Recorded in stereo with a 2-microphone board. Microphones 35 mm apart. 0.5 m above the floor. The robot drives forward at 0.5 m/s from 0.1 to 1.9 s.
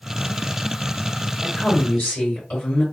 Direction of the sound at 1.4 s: 55° left (ahead or behind).